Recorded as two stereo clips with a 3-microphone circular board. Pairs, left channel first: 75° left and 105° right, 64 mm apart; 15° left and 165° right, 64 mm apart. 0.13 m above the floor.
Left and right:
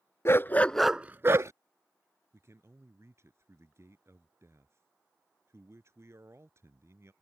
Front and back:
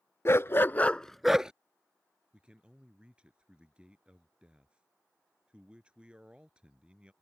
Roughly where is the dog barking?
Ahead left.